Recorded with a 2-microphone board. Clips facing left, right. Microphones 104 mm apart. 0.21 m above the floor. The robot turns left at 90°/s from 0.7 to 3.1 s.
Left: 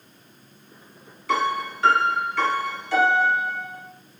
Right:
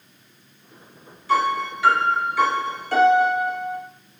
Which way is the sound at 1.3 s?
90° left.